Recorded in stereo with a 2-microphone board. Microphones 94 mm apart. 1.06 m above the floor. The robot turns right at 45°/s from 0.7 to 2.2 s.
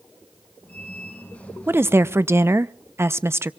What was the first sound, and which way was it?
A woman speaking, 25° right (ahead or behind).